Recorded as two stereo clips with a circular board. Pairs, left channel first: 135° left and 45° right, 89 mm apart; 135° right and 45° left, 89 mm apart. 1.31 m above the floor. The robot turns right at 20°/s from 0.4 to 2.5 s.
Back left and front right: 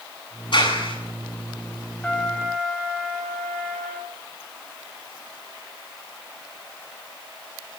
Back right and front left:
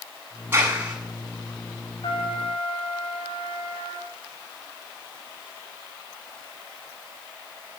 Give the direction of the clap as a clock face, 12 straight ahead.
8 o'clock.